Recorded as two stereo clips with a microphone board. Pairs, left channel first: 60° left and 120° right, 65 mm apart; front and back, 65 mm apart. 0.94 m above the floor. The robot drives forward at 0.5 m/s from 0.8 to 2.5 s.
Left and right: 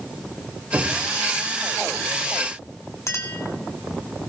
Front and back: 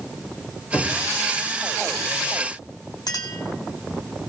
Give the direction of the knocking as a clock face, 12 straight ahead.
2 o'clock.